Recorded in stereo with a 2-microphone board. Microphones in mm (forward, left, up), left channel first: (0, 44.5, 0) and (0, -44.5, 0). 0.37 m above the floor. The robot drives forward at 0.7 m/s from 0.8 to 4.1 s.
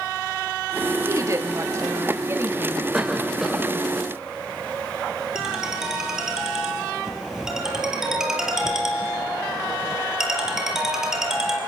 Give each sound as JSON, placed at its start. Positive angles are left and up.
{"t": 1.1, "sound": "a woman speaking", "side_deg": -40, "distance_m": 1.9}
{"t": 2.9, "sound": "a cough", "side_deg": -5, "distance_m": 1.3}
{"t": 5.3, "sound": "a ringtone", "side_deg": -5, "distance_m": 4.0}